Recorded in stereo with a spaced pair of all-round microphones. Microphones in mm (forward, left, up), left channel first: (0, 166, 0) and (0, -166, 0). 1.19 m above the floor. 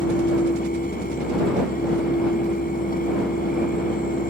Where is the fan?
25° left (ahead or behind).